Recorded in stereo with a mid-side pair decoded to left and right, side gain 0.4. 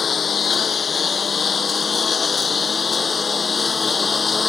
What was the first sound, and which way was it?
A lawn mower, 45° left.